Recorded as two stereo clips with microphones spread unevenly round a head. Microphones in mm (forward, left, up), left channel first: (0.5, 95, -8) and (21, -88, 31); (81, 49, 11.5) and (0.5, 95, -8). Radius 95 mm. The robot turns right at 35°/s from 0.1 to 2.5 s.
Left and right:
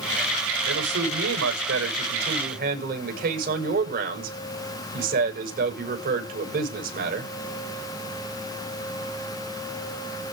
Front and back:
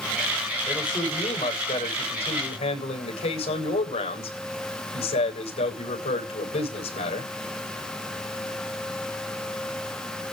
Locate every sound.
0.7 s a man speaking: 105° right, 8 m; by 7.3 s 40° right, 8 m